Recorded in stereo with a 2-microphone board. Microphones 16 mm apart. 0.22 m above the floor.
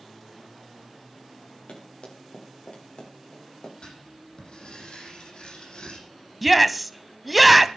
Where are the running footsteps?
85° left, 9 m; by 3.7 s 75° left (ahead or behind), 7.5 m.